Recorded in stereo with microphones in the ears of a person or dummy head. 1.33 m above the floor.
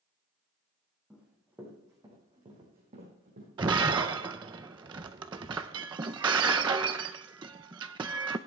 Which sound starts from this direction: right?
Breaking glass, at 3.6 s.